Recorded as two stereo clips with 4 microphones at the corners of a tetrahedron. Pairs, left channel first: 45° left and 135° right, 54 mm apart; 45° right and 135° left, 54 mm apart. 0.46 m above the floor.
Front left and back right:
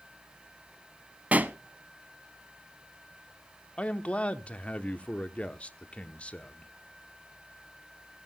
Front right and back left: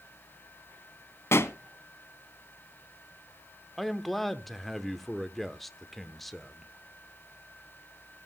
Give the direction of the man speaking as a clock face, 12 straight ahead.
11 o'clock.